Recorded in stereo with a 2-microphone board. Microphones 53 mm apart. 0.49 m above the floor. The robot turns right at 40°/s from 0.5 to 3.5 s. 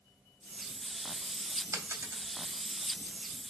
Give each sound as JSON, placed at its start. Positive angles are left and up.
{"t": 1.7, "sound": "a dropped coin", "side_deg": -80, "distance_m": 0.6}